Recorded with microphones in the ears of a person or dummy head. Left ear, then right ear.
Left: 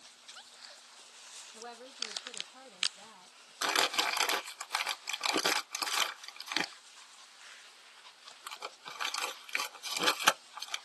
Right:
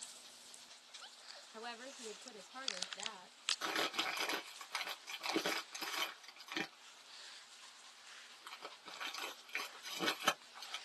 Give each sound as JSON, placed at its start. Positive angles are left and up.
{"t": 1.5, "sound": "a woman speaking", "side_deg": -55, "distance_m": 0.6}
{"t": 3.6, "sound": "crumpling", "side_deg": 25, "distance_m": 0.6}